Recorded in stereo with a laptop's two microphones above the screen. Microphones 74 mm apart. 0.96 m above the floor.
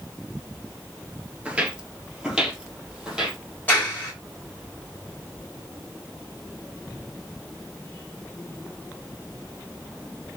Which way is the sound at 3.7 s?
25° left (ahead or behind).